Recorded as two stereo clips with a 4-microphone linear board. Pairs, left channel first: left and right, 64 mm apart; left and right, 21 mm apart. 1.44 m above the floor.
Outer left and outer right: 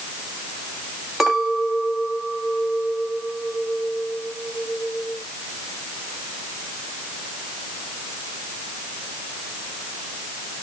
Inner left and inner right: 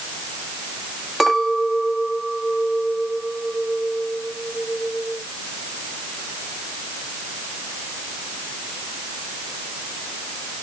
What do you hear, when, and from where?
1.2 s a clink: 5° right (ahead or behind), 2.0 m